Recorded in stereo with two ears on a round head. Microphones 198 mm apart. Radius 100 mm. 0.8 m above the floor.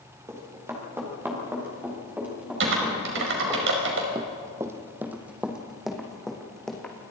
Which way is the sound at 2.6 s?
65° right (ahead or behind).